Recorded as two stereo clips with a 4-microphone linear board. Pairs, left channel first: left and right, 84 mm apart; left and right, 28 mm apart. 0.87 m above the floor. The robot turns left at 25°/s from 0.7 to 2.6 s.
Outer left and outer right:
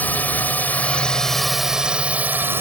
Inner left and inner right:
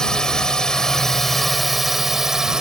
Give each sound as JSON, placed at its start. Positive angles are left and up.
{"t": 0.0, "sound": "a drone", "azimuth_deg": 20}